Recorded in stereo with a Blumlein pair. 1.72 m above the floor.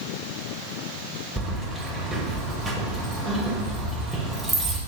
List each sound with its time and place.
1.4 s keys jangling: straight ahead, 1.9 m